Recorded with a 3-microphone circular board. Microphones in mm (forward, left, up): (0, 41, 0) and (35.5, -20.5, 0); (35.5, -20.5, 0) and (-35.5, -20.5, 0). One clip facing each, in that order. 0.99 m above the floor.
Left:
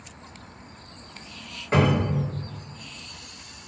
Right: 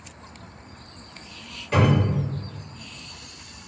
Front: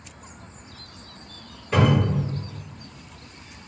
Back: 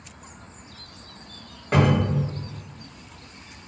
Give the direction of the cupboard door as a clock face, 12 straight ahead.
6 o'clock.